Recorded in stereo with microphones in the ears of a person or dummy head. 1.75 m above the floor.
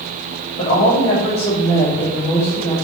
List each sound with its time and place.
0.6 s a woman speaking: 35° left (ahead or behind), 3 m; by 2.7 s 15° left (ahead or behind), 3.5 m